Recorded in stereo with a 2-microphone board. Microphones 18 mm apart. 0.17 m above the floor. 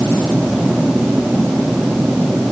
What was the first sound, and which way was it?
Only background noise.